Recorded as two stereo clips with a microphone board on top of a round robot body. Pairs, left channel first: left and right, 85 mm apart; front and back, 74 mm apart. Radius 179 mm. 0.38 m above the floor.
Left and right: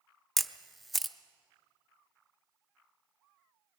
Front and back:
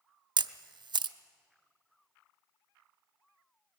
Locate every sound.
0.4 s a camera shutter: straight behind, 0.6 m